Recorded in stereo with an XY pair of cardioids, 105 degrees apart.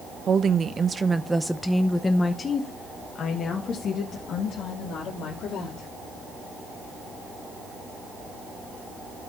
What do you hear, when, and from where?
0.3 s a woman speaking: 50° right, 0.9 m; by 5.9 s 70° left, 2.5 m